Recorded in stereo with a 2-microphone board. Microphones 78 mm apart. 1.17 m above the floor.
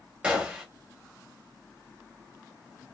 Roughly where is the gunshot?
Centre.